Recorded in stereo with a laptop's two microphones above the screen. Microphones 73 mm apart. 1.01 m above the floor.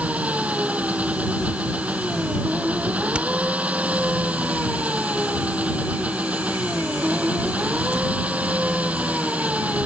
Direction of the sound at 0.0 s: 15° right (ahead or behind).